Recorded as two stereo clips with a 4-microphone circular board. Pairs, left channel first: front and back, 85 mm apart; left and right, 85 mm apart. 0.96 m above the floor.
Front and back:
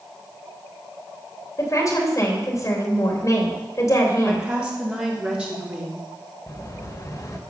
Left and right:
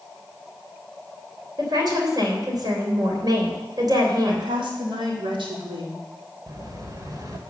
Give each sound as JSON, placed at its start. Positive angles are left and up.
{"t": 1.6, "sound": "a woman speaking", "azimuth_deg": -50, "distance_m": 3.0}
{"t": 4.2, "sound": "a woman speaking", "azimuth_deg": -105, "distance_m": 2.5}
{"t": 6.5, "sound": "an explosion", "azimuth_deg": -45, "distance_m": 1.5}